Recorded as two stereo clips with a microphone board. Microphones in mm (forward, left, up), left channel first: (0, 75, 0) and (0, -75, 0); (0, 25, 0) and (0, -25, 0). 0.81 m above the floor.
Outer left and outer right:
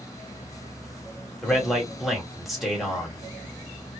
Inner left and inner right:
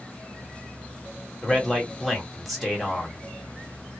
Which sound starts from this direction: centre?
A man speaking, at 1.4 s.